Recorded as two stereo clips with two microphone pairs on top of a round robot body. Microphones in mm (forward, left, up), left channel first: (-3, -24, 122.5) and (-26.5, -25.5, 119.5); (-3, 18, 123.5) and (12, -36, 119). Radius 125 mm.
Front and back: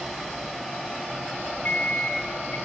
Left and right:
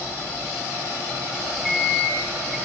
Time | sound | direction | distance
1.6 | a microwave | 15° left | 0.9 m